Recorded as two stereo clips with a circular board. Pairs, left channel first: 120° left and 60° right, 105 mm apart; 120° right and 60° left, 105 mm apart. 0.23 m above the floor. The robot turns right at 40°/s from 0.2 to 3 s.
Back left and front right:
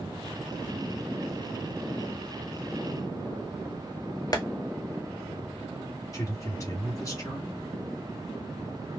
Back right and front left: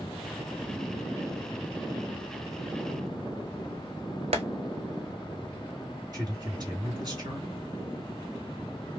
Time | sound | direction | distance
4.3 | tapping | 70° left | 0.9 m
6.1 | a man speaking | 80° left | 1.9 m